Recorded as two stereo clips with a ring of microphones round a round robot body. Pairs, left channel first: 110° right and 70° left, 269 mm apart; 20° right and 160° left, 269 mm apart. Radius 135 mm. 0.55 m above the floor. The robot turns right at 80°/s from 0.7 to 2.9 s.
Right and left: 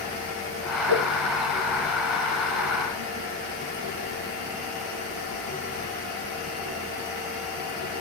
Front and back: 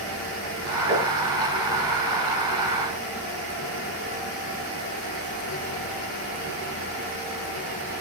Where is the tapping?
115° left, 7.5 m; by 1.1 s 130° left, 7.5 m.